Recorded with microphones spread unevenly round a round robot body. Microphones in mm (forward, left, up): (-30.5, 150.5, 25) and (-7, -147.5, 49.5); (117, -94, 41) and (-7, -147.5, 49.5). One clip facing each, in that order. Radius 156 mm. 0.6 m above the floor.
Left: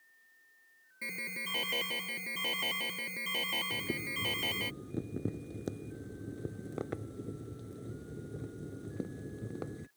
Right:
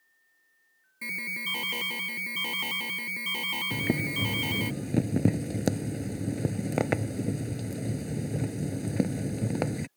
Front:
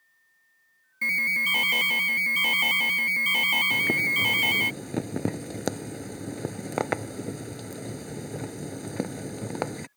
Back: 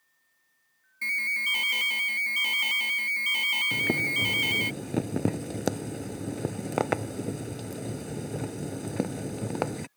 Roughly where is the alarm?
Ahead.